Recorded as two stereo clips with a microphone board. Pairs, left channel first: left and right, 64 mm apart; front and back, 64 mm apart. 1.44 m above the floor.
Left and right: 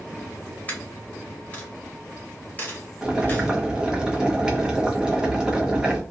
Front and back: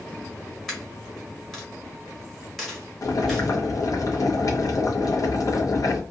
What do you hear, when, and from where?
0.7 s a dropped coin: 85° left, 1.1 m
3.0 s boiling: 15° right, 0.7 m